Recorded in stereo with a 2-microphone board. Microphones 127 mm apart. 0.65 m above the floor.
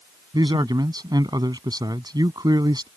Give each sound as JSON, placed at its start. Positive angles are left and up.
{"t": 0.3, "sound": "a man speaking", "side_deg": -30}